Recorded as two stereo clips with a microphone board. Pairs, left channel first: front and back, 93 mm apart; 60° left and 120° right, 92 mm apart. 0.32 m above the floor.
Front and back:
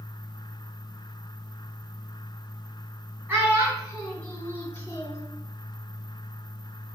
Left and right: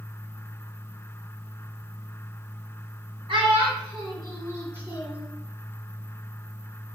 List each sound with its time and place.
3.3 s a child speaking: 105° right, 1.5 m; by 5.2 s 50° right, 2 m